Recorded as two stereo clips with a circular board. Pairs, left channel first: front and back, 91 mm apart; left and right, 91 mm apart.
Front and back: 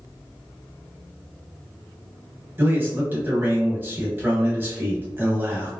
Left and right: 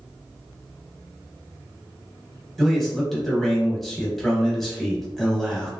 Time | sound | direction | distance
2.6 | a man speaking | 175° left | 1.0 m